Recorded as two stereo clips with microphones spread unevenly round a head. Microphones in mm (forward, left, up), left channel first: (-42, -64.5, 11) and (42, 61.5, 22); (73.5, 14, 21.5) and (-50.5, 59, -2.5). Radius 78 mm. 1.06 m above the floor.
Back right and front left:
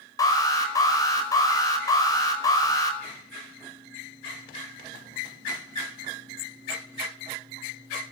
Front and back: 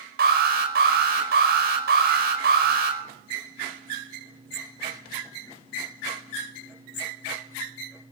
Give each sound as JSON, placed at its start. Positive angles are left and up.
{"t": 0.2, "sound": "an alarm", "azimuth_deg": 170, "distance_m": 5.0}